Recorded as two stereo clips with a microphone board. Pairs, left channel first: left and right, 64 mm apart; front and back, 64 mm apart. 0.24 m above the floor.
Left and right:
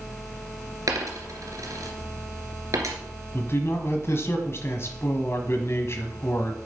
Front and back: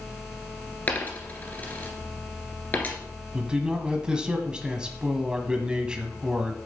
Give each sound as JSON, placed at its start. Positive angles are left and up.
{"t": 0.9, "sound": "a dropped coin", "azimuth_deg": -65, "distance_m": 1.8}
{"t": 3.3, "sound": "a man speaking", "azimuth_deg": 110, "distance_m": 1.3}